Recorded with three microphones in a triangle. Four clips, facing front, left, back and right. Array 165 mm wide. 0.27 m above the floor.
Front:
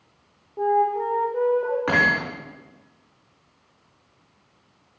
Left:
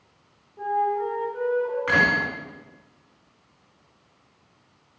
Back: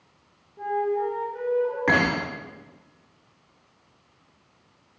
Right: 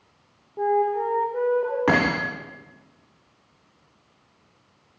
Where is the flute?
40° right, 10 m.